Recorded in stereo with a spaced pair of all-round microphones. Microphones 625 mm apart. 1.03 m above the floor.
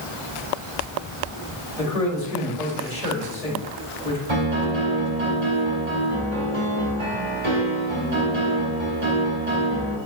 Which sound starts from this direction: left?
A man speaking, at 1.8 s.